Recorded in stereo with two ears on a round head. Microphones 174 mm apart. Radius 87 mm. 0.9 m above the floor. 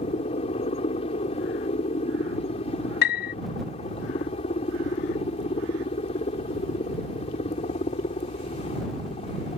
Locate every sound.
0.0 s a helicopter: 30° left (ahead or behind)
3.0 s a piano: 60° left (ahead or behind)